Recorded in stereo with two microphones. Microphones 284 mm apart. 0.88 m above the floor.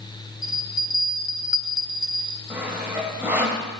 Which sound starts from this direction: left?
A bell, at 0.4 s.